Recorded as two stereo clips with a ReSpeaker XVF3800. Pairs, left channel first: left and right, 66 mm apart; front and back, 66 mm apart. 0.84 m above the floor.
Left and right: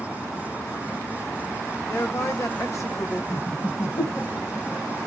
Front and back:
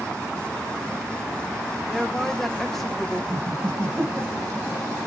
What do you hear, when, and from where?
1.9 s a woman speaking: 85° left, 0.9 m
3.3 s laughter: 140° left, 1.5 m